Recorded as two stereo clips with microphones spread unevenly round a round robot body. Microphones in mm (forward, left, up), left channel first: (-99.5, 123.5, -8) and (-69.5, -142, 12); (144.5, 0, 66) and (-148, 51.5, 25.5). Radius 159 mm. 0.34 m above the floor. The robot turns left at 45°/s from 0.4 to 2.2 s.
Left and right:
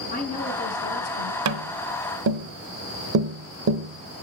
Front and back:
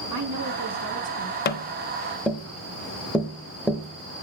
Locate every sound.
0.1 s a woman speaking: 155° left, 4 m; by 1.4 s 110° left, 4 m
1.4 s tapping: 70° right, 0.7 m; by 4.2 s 100° right, 0.7 m